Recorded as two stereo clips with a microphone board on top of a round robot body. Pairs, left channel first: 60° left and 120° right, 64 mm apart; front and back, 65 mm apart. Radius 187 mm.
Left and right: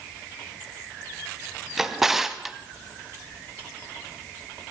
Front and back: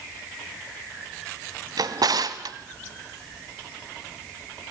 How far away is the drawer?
About 1.0 m.